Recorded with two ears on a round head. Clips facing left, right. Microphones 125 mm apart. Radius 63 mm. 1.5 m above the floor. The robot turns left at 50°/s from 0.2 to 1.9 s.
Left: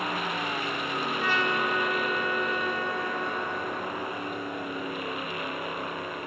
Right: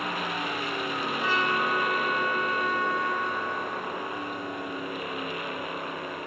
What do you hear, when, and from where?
1.2 s a trumpet: 135° left, 1.3 m; by 4.9 s 100° left, 1.3 m